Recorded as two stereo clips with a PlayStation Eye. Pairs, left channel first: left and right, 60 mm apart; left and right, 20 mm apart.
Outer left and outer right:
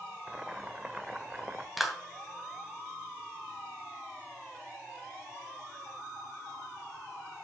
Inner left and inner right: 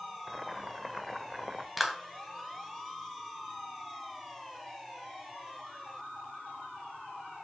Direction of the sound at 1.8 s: 5° right (ahead or behind).